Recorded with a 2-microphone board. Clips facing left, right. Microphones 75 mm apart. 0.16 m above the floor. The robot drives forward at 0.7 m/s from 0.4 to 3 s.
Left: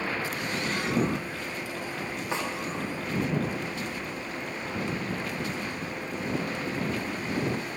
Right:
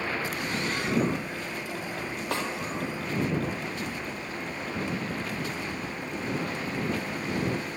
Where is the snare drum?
75° right (ahead or behind), 3 m; by 2.5 s 70° right (ahead or behind), 3 m.